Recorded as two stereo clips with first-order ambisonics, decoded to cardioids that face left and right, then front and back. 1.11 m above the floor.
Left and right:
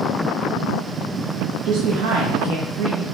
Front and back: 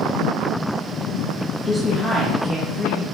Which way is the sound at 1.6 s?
80° right.